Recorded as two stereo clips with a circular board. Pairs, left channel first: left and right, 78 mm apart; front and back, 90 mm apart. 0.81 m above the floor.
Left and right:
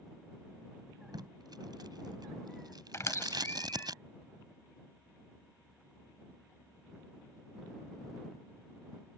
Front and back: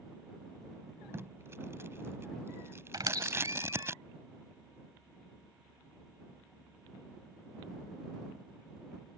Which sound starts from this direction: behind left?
A squeak, at 2.9 s.